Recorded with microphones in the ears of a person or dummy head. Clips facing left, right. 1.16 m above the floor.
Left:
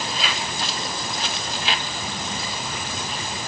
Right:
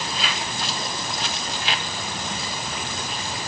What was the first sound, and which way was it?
Only background noise.